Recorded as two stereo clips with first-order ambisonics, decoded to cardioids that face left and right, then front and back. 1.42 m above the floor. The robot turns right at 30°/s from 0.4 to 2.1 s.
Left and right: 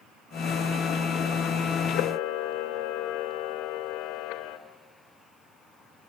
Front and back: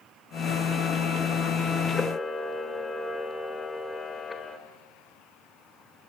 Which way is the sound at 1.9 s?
70° left.